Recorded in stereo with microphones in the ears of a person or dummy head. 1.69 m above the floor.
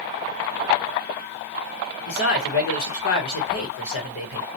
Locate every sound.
2.1 s a man speaking: 55° left (ahead or behind), 1.1 m